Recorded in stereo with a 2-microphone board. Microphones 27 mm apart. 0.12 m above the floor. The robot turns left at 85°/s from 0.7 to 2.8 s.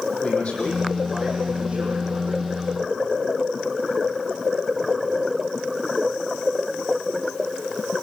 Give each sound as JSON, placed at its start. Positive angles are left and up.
{"t": 0.2, "sound": "a man speaking", "azimuth_deg": 50, "distance_m": 5.5}